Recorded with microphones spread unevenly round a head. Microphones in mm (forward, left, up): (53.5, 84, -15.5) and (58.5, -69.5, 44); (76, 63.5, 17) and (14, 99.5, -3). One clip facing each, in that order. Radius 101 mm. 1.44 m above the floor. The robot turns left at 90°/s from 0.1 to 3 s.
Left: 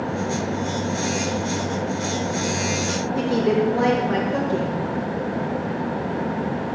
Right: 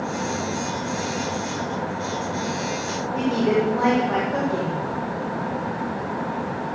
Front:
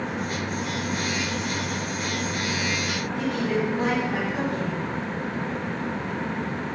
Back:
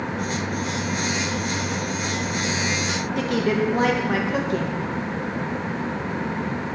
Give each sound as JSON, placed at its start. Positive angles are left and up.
{"t": 3.2, "sound": "a woman speaking", "azimuth_deg": 150, "distance_m": 1.9}